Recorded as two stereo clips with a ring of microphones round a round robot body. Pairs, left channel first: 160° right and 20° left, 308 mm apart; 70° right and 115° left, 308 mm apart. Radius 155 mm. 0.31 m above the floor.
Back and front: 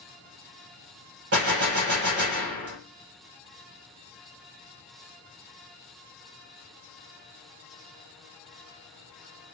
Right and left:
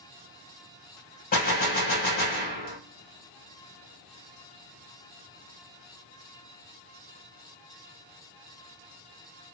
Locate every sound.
1.3 s a gunshot: 10° right, 1.4 m